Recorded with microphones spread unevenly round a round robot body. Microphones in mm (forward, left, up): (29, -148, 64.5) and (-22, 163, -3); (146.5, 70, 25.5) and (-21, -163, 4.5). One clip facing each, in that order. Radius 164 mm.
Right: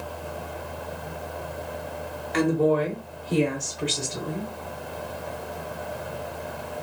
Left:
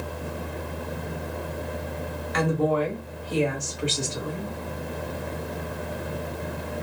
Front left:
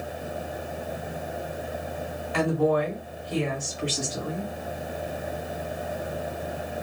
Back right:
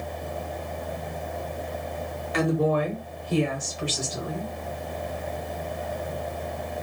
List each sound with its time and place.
2.3 s a woman speaking: 105° right, 1.1 m; by 4.5 s 160° right, 2.0 m